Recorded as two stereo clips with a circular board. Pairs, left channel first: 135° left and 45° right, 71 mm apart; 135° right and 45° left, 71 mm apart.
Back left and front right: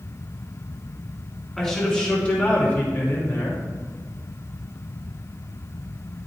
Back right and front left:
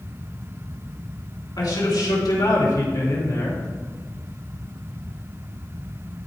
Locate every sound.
1.6 s a man speaking: 145° right, 3 m; by 3.6 s straight behind, 2.5 m